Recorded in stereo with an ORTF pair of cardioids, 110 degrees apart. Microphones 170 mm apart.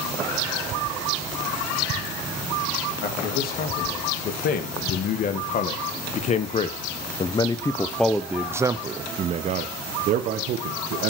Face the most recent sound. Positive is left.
turn(degrees=-70)